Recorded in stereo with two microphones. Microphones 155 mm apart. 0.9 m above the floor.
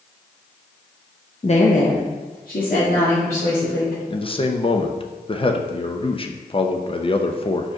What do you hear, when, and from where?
1.4 s a woman speaking: 40° left (ahead or behind), 0.6 m; by 4.0 s 70° left (ahead or behind), 3 m
4.1 s a man speaking: 35° left (ahead or behind), 0.6 m